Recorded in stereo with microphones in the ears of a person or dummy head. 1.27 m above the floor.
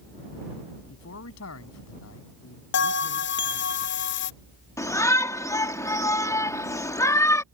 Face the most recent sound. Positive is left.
turn(degrees=15)  # may be behind; listen again after turning